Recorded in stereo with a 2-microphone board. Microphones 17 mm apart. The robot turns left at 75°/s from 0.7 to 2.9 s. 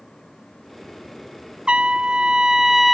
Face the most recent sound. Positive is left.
turn(degrees=-175)